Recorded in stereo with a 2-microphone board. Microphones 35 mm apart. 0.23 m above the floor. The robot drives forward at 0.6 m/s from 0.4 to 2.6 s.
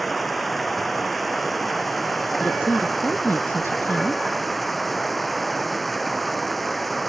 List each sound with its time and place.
0.0 s running water: 5° left (ahead or behind)
2.4 s a woman speaking: 75° left (ahead or behind)